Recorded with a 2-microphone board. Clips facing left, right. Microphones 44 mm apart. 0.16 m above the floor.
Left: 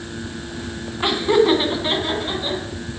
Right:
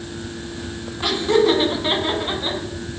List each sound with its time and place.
1.0 s laughter: 25° left (ahead or behind), 1.3 m; by 2.6 s 30° right (ahead or behind), 1.5 m